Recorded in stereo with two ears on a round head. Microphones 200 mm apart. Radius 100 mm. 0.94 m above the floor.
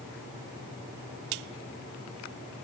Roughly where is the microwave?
I don't hear a microwave.